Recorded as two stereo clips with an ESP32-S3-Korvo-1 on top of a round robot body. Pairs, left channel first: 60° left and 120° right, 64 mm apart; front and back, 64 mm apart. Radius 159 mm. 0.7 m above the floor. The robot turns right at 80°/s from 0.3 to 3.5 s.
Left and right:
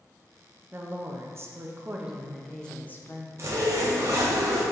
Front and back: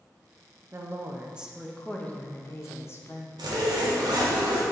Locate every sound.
0.7 s a woman speaking: 165° right, 0.8 m; by 3.3 s 45° left, 0.8 m
3.4 s a zipper: 170° right, 0.8 m; by 4.6 s 160° right, 0.8 m